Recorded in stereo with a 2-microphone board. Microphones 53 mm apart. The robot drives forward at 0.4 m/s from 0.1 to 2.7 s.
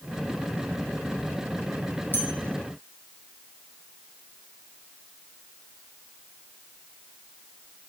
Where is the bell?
35° left (ahead or behind), 2.5 m.